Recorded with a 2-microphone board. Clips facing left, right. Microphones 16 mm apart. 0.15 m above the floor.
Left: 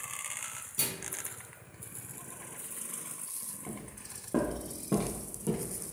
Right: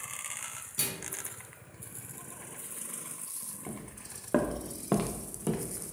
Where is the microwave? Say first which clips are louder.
Even; 15° right (ahead or behind), 0.9 m.